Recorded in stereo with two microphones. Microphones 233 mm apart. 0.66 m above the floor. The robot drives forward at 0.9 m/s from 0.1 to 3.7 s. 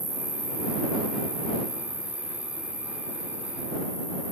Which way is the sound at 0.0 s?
50° right (ahead or behind).